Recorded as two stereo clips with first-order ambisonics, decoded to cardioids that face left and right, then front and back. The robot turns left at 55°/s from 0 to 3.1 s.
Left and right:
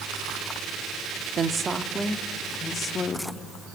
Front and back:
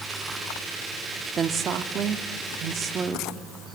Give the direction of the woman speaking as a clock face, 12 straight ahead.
4 o'clock.